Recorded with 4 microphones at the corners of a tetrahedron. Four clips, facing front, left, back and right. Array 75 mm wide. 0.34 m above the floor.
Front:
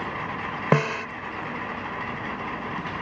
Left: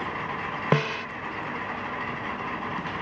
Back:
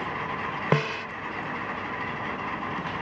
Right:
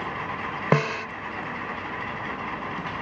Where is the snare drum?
40° right.